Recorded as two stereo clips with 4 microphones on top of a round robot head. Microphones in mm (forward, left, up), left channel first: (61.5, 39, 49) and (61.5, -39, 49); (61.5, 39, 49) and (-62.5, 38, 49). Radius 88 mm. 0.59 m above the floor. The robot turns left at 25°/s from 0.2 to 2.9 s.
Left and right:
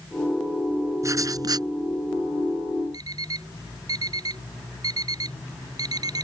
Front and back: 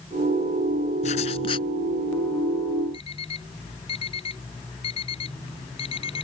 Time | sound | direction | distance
1.0 | writing | 45° right | ?
2.9 | an alarm clock | 55° right | ?